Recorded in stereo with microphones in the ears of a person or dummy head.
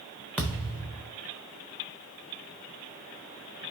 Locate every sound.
0.4 s a thud: 5° left (ahead or behind), 0.9 m